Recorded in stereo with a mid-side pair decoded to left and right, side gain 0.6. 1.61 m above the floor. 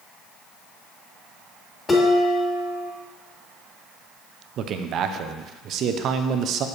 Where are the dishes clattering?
25° left, 3 m.